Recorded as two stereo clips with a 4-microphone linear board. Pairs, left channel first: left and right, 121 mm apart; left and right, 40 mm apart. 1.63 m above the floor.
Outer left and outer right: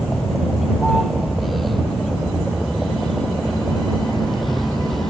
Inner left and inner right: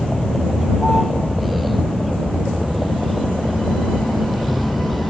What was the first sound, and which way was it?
A vehicle, centre (ahead or behind).